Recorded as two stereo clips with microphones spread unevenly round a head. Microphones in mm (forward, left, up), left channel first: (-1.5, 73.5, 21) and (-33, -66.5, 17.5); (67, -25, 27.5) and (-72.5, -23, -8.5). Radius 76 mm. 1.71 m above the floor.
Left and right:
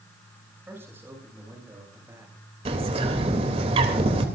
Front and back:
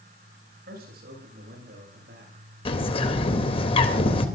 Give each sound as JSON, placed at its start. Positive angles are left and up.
{"t": 0.7, "sound": "a man speaking", "azimuth_deg": 180, "distance_m": 9.5}
{"t": 2.6, "sound": "a bird", "azimuth_deg": -50, "distance_m": 3.0}